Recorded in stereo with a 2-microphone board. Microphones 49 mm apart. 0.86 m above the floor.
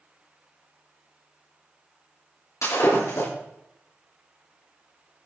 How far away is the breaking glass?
About 6.5 m.